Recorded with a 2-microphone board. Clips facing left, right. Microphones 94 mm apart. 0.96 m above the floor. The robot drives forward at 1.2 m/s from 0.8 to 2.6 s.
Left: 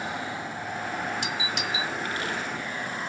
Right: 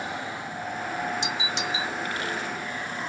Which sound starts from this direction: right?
A doorbell, at 1.2 s.